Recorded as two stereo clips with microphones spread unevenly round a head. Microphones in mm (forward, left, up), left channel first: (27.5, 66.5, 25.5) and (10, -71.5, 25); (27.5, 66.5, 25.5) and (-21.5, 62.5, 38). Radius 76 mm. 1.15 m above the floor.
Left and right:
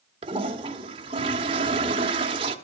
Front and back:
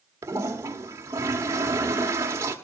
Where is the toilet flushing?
150° right, 1.2 m.